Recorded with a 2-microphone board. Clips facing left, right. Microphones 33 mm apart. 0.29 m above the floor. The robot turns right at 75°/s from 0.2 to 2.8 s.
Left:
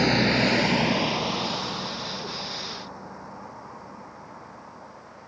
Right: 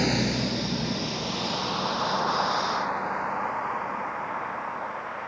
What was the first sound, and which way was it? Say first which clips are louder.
A vehicle: left 4 dB; 15° left (ahead or behind).